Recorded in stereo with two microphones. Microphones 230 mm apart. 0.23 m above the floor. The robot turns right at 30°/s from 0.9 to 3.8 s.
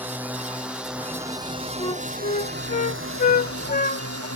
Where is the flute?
20° left (ahead or behind); by 4.3 s 40° left (ahead or behind).